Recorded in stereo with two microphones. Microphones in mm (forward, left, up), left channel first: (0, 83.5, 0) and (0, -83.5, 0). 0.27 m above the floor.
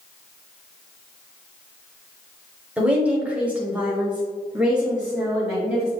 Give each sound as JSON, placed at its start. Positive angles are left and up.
{"t": 2.8, "sound": "a woman speaking", "side_deg": -10, "distance_m": 1.2}